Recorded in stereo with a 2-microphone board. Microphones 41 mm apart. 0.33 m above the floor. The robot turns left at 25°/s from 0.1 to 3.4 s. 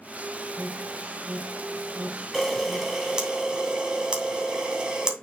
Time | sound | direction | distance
0.6 | an alarm | 10° right (ahead or behind) | 1.6 m
2.3 | a camera shutter | 5° left (ahead or behind) | 2.5 m